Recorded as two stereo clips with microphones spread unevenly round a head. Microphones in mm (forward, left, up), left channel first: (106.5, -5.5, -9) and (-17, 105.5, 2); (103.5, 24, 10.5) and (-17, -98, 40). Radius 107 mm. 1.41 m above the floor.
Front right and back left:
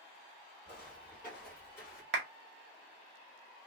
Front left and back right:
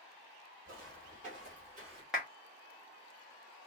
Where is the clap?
140° left, 0.7 m.